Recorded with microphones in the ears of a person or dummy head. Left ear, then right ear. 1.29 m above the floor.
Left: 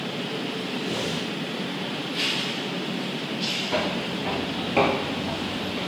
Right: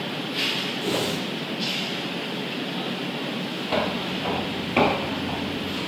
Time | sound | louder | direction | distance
0.8 | a whoosh | right 1 dB | 30° right (ahead or behind) | 0.5 m
3.7 | footsteps | right 1 dB | 25° right (ahead or behind) | 2 m